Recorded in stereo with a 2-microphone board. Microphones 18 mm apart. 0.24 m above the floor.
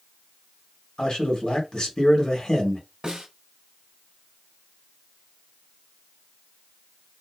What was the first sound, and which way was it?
A man speaking, 50° left (ahead or behind).